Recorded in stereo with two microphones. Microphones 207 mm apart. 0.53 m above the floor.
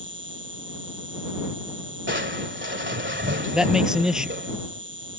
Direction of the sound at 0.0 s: 65° right (ahead or behind).